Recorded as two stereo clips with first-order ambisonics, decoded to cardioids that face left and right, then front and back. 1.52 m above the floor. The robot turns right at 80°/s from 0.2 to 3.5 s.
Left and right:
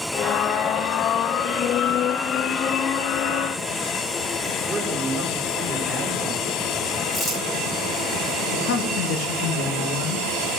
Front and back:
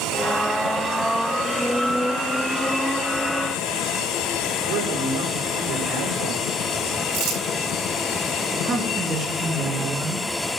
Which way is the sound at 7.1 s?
165° left.